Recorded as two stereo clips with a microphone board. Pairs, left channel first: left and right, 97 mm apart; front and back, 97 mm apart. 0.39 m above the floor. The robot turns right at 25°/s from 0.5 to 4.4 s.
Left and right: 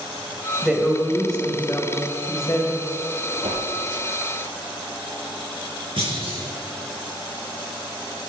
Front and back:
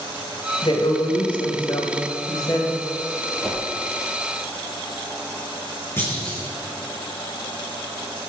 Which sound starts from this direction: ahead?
A woman speaking, at 0.6 s.